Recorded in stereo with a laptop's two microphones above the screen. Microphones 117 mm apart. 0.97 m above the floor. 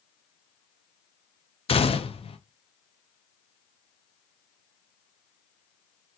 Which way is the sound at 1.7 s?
50° left (ahead or behind).